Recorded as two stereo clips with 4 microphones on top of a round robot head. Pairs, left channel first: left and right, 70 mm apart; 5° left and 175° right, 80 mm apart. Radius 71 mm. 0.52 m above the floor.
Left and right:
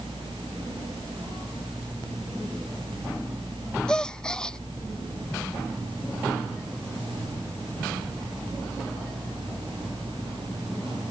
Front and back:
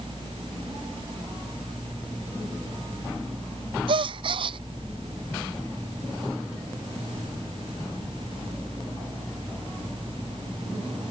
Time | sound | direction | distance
3.9 | a gasp | 170° left | ?